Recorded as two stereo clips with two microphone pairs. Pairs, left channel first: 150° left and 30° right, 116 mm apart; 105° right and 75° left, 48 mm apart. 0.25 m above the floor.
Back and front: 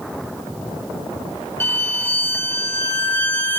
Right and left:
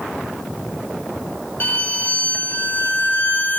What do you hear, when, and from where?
1.6 s a violin: 145° right, 0.9 m